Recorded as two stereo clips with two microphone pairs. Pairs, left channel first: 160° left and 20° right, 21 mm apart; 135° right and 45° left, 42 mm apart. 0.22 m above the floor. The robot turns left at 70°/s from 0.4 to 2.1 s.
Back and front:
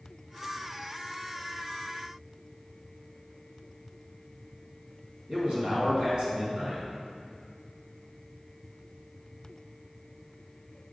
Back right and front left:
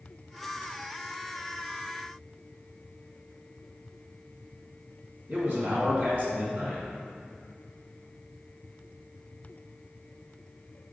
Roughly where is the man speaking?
Ahead.